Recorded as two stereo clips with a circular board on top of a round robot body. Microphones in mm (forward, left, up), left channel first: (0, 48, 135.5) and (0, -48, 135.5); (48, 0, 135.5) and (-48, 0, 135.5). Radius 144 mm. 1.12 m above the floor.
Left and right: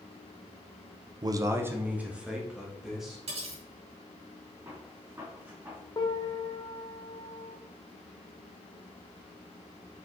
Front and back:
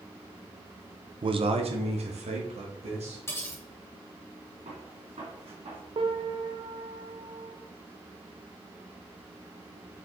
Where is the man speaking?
140° right, 0.7 m; by 3.2 s straight behind, 2.5 m.